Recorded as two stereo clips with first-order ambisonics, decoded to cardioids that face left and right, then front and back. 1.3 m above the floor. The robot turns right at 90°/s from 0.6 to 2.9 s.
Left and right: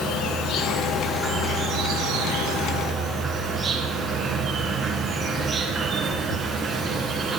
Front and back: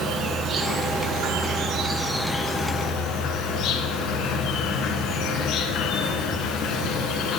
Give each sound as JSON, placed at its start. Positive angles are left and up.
{"t": 0.0, "sound": "an insect", "azimuth_deg": 130, "distance_m": 1.6}